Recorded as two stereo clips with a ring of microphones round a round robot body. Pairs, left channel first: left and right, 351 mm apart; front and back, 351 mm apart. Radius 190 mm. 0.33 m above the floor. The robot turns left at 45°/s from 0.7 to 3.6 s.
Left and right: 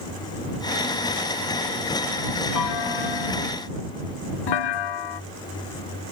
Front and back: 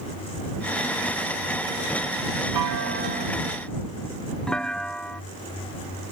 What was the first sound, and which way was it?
A clunk, 135° left.